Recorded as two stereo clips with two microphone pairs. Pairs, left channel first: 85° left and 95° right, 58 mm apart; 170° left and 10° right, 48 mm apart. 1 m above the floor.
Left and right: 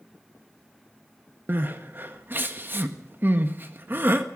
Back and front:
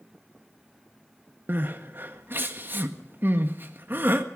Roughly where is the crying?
Ahead right.